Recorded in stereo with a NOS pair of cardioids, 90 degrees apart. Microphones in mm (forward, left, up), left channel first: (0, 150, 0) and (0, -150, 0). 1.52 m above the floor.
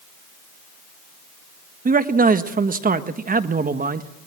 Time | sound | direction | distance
1.9 | a man speaking | 30° right | 1.5 m